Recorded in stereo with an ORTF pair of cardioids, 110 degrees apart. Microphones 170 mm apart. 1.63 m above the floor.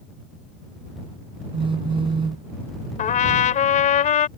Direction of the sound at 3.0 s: 50° left.